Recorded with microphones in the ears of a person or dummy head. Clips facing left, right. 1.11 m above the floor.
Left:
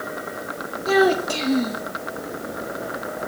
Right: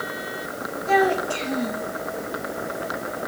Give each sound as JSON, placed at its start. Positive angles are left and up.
{"t": 0.9, "sound": "a child speaking", "side_deg": 55, "distance_m": 1.4}